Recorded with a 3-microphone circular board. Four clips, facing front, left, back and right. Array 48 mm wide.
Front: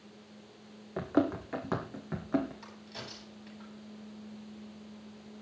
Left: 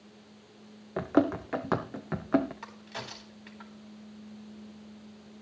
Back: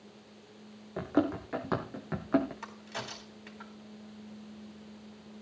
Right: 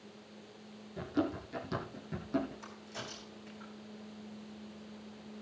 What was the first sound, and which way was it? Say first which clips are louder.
Running footsteps: left 9 dB, even; 85° left.